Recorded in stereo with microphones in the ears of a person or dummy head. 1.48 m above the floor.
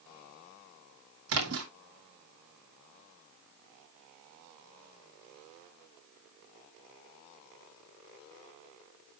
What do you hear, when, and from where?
1.3 s a splash: 70° right (ahead or behind), 2.5 m